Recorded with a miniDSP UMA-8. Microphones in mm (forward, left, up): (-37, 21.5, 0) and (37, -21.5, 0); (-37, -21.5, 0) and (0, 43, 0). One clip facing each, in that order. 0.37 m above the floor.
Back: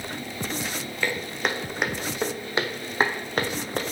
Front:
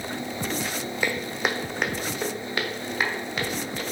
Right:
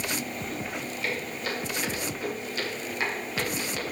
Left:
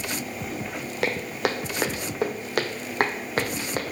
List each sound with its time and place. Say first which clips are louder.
1.0 s footsteps: even, left 8 dB; 45° left, 1.5 m; by 3.8 s 110° left, 1.7 m